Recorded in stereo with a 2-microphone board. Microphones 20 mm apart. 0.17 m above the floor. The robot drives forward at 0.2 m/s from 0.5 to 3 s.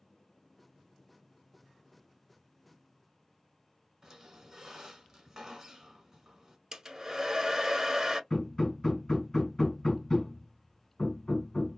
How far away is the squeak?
About 1.1 m.